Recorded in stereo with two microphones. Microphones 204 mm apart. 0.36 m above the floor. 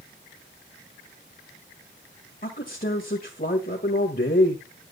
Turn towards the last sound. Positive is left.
turn(degrees=45)  # may be behind; listen again after turning